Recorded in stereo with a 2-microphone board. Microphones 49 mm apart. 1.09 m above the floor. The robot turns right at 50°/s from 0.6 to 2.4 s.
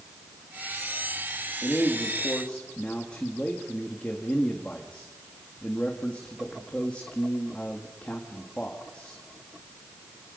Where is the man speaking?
120° left, 2.0 m; by 9.2 s 155° left, 2.0 m.